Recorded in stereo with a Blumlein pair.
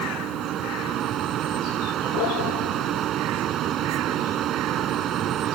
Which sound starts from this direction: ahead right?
A fan, at 0.0 s.